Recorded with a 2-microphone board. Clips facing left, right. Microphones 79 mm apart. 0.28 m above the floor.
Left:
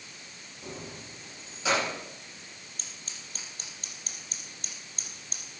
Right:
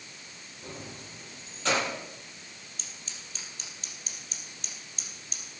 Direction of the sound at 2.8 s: 45° left (ahead or behind).